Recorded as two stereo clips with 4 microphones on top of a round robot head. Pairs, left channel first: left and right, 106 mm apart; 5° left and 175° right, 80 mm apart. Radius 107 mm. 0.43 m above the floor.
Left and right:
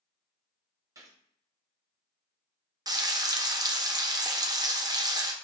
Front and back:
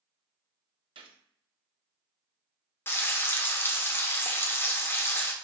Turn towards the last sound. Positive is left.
turn(degrees=-50)